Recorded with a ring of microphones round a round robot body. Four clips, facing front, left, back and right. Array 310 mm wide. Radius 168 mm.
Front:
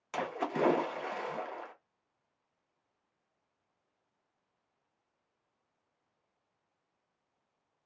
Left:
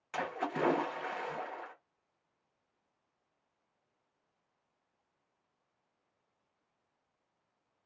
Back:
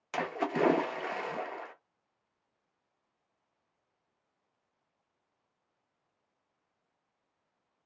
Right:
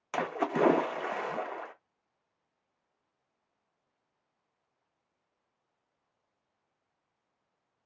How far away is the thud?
No thud in this recording.